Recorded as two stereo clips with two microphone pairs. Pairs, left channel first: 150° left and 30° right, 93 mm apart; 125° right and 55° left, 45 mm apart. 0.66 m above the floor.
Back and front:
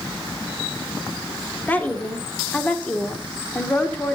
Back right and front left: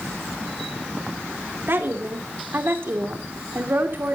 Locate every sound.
1.7 s a woman speaking: 80° left, 2 m